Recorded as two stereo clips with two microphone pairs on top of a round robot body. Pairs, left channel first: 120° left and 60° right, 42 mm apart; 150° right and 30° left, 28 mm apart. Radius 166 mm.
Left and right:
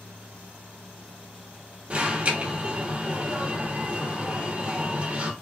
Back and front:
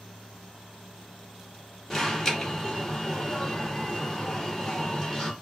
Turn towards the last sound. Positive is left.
turn(degrees=-70)